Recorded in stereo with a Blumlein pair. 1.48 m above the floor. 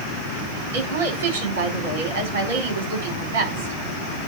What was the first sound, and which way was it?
A woman speaking, 60° right.